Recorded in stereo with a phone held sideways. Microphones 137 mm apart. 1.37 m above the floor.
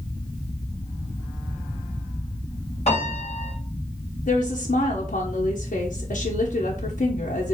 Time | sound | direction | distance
2.9 | a piano | 50° left (ahead or behind) | 3 m
4.3 | a woman speaking | 90° left | 0.7 m